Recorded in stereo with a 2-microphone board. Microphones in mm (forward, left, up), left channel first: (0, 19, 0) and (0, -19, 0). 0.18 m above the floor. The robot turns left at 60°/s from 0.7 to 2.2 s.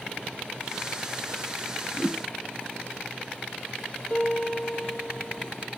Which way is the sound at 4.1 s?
30° left (ahead or behind).